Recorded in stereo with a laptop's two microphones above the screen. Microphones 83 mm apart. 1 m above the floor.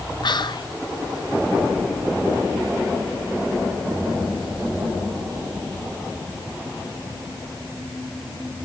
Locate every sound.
0.2 s whispering: 60° left (ahead or behind), 0.7 m